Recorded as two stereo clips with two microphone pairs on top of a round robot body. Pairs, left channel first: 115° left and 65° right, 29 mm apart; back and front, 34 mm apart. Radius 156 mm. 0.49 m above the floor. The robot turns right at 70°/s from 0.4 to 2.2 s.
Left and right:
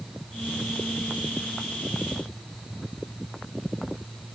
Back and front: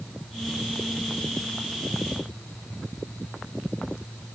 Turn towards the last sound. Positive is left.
No sound to turn to.